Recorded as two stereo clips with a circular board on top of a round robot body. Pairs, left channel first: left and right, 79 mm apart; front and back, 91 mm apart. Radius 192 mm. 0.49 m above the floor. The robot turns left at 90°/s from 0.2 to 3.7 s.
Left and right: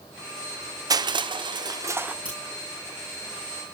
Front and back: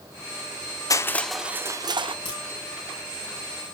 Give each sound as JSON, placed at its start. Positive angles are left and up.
{"t": 0.9, "sound": "crushing", "azimuth_deg": -50, "distance_m": 0.7}
{"t": 2.2, "sound": "a crack", "azimuth_deg": -15, "distance_m": 7.5}